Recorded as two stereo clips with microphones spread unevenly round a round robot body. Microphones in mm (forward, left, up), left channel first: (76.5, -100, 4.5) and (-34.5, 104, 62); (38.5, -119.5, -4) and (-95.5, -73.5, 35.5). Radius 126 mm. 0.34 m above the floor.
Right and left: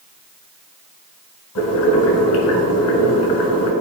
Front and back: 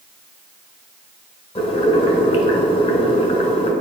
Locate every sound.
1.6 s boiling: 70° right, 2.0 m